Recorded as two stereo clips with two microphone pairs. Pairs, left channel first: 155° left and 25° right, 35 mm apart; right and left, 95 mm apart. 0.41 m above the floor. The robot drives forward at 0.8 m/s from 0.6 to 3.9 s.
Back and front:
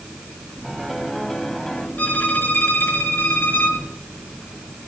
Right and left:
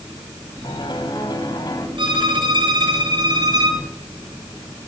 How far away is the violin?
About 4 m.